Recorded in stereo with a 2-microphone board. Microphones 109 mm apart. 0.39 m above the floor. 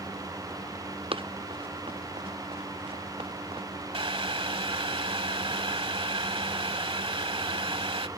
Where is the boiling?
60° right (ahead or behind).